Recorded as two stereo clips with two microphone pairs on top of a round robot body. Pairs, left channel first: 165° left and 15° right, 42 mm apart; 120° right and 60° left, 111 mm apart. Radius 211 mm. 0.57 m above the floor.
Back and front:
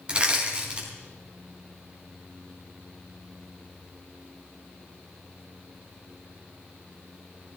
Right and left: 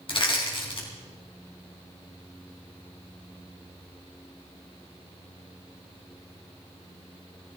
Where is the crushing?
80° right, 4.5 m.